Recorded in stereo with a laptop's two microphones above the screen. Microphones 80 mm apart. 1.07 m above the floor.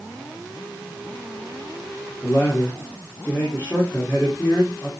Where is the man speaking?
30° left (ahead or behind), 2.5 m.